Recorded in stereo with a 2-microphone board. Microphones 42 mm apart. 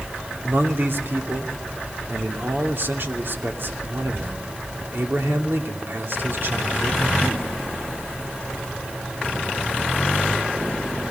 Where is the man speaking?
60° right (ahead or behind), 2.5 m.